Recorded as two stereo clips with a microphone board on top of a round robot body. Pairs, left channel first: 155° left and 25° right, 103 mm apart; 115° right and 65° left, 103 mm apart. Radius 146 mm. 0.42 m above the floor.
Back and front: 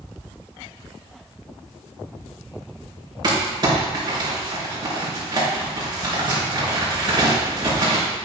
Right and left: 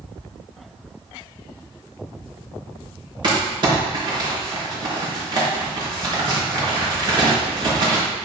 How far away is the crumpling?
About 4 m.